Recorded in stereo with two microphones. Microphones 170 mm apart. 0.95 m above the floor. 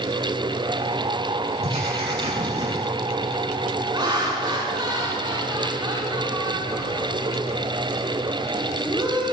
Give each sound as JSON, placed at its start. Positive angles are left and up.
{"t": 1.6, "sound": "writing", "side_deg": -40, "distance_m": 8.0}
{"t": 3.9, "sound": "laughter", "side_deg": -25, "distance_m": 2.5}